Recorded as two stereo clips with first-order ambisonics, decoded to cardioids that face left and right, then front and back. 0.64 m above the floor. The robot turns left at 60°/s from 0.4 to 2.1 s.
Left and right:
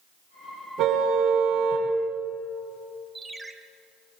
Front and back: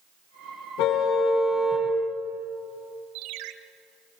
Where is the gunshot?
No gunshot in this recording.